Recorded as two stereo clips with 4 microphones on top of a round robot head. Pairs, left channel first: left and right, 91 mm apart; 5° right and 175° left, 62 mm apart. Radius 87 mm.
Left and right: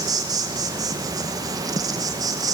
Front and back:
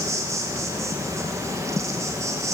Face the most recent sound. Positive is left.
turn(degrees=-140)